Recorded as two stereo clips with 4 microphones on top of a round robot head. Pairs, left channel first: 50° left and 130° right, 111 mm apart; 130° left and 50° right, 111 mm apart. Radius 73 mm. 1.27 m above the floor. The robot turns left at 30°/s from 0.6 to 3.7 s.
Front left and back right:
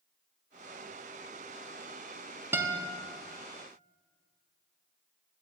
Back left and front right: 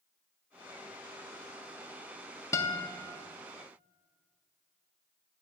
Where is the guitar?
170° left, 0.6 m; by 2.9 s 160° left, 0.6 m.